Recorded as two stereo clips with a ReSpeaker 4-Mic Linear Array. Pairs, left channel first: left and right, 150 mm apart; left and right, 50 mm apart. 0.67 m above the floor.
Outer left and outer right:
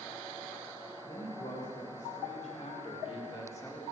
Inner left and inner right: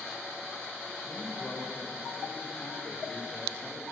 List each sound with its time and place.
1.0 s a man speaking: 70° left (ahead or behind), 3 m; by 3.8 s 15° left (ahead or behind), 2 m